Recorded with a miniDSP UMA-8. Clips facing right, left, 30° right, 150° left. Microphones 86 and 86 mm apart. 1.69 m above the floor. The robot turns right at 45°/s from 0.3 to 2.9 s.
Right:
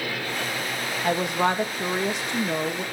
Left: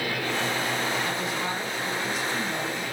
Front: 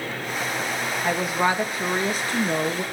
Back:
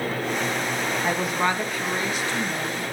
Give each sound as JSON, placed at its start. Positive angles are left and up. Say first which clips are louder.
{"t": 1.0, "sound": "a woman speaking", "louder": "right 6 dB, front 3 dB", "azimuth_deg": -130, "distance_m": 3.0}